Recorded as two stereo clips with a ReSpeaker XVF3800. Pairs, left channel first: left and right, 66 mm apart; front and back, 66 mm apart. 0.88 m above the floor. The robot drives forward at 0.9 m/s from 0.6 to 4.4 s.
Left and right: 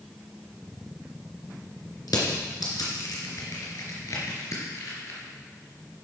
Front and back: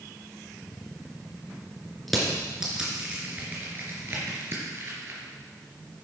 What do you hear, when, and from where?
2.1 s crushing: 90° left, 3 m; by 5.2 s 130° left, 3.5 m